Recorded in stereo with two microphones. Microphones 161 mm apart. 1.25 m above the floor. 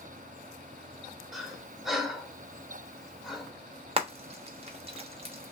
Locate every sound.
1.3 s breathing: centre (ahead or behind), 1.1 m
4.0 s frying: 40° right (ahead or behind), 0.9 m